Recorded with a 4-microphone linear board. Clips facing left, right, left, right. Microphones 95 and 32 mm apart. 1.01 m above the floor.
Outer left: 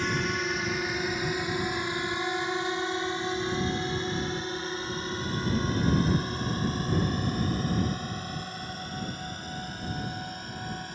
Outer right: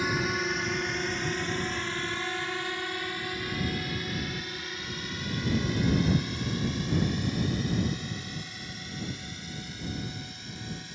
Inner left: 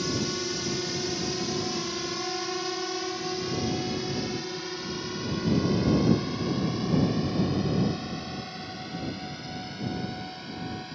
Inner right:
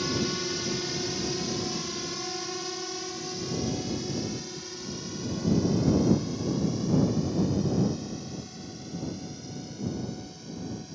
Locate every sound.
0.0 s a drone: 5° right (ahead or behind); by 10.9 s 50° left (ahead or behind)